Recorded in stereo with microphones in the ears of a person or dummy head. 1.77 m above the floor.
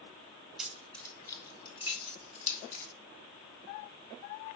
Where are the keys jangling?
5° left (ahead or behind), 1.5 m; by 2.9 s 60° left (ahead or behind), 1.8 m.